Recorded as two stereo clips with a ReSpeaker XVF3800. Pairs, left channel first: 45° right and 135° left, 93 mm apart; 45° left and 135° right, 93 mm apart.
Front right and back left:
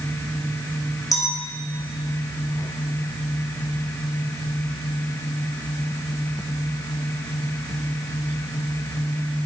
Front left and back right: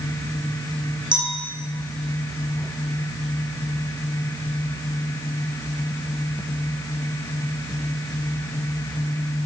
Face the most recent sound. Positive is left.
turn(degrees=-95)